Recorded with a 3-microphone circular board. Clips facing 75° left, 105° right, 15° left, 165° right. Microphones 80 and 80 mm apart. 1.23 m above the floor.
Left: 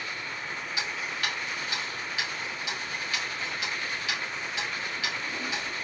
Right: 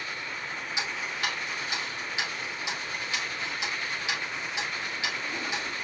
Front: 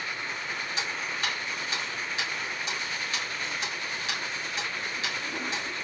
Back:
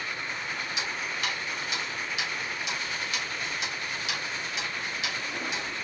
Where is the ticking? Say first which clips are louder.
Right 1 dB, front 1 dB; 35° right, 2 m.